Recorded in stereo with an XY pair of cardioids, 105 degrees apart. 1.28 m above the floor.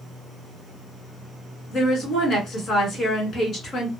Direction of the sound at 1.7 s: 55° left.